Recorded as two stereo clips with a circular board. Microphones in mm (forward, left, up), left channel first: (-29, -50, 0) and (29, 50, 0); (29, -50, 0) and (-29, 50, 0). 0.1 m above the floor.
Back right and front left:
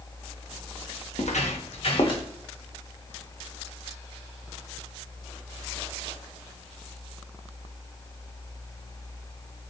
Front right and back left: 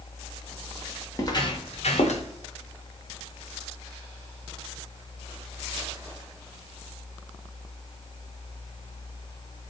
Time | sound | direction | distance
1.1 | footsteps | 120° right | 1.2 m